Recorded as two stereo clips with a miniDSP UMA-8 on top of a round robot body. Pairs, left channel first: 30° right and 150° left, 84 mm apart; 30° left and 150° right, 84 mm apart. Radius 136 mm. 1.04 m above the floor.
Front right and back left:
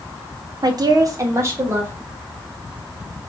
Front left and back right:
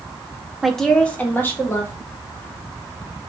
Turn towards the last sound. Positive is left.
turn(degrees=85)